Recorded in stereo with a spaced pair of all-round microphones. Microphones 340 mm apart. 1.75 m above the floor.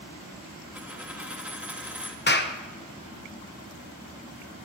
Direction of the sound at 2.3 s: 30° left (ahead or behind).